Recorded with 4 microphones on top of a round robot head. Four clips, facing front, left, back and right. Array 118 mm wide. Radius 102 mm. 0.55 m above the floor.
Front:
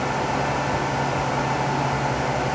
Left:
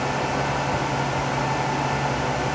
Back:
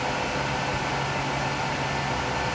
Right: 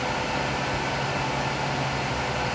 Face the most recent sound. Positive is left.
No sound to turn to.